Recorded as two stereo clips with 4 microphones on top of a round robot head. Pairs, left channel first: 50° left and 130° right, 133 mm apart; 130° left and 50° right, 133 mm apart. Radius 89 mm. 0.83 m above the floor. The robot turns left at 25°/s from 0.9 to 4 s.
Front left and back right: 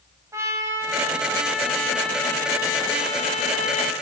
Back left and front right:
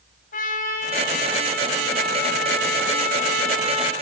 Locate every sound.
0.3 s a trumpet: 160° left, 5 m; by 3.9 s 85° left, 5 m